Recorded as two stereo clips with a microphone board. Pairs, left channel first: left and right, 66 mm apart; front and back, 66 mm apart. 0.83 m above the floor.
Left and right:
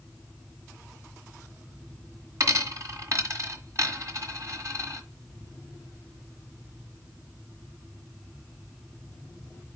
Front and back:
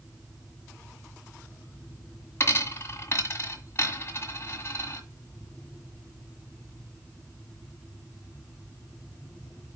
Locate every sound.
2.4 s a dropped coin: 50° right, 1.6 m